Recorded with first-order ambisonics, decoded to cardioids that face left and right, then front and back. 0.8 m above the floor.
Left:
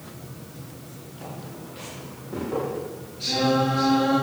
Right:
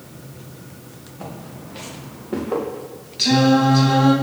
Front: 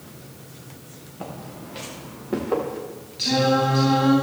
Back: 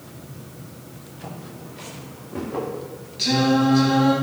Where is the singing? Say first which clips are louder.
Right 6 dB, even; 95° right, 5 m.